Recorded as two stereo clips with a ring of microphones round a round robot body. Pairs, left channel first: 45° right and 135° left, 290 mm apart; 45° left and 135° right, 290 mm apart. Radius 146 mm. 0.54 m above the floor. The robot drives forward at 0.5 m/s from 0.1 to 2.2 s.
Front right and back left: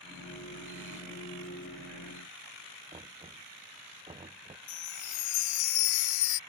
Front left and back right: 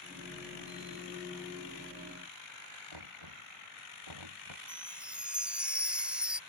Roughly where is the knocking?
Behind right.